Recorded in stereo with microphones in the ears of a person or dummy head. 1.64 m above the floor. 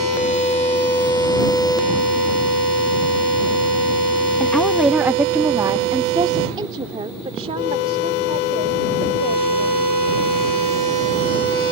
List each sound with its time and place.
4.4 s a woman speaking: 10° left (ahead or behind); by 9.8 s 40° right (ahead or behind)